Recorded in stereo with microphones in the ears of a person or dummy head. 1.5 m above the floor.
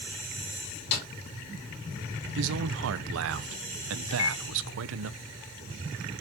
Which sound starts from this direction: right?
A man speaking, at 2.4 s.